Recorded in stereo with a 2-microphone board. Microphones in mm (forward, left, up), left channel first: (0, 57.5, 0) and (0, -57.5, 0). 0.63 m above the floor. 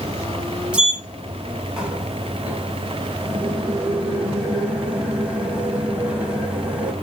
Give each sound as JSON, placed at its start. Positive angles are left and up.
{"t": 0.7, "sound": "a sliding door", "side_deg": -10, "distance_m": 1.3}